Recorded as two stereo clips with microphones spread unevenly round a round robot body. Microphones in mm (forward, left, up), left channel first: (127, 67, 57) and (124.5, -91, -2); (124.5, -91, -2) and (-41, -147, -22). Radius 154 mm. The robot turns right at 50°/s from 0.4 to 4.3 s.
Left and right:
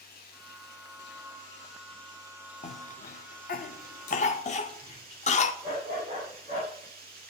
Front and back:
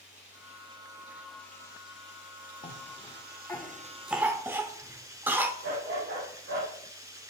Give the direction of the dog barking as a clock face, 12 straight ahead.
5 o'clock.